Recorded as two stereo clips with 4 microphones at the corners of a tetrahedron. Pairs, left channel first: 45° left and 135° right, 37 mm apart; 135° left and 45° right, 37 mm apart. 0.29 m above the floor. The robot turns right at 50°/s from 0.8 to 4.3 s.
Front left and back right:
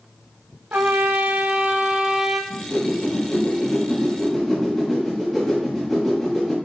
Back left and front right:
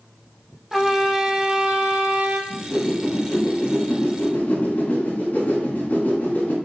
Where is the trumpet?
135° right, 1.0 m; by 2.4 s 55° right, 1.0 m.